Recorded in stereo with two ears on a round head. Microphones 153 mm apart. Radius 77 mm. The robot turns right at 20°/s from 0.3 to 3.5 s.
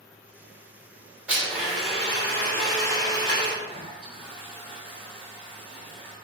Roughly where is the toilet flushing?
Centre.